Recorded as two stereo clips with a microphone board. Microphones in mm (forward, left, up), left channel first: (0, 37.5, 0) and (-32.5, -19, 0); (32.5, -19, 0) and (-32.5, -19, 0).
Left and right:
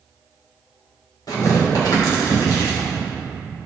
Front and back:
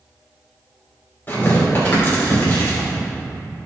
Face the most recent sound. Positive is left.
turn(degrees=55)